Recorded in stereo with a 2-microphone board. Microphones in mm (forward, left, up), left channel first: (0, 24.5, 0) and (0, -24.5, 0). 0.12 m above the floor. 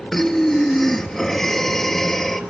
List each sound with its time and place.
0.1 s breathing: 5° left (ahead or behind), 1.0 m